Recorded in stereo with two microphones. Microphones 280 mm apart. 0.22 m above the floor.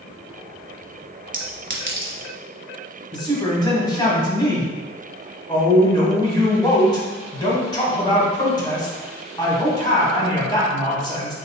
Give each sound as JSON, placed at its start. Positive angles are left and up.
{"t": 1.3, "sound": "a clink", "side_deg": -45, "distance_m": 1.0}
{"t": 3.1, "sound": "a woman speaking", "side_deg": 15, "distance_m": 1.3}